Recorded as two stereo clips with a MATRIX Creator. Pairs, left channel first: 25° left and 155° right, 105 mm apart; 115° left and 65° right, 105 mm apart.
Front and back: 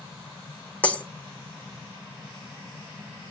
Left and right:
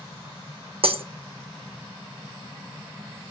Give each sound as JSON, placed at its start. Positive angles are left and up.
{"t": 0.8, "sound": "breaking glass", "azimuth_deg": -55, "distance_m": 0.8}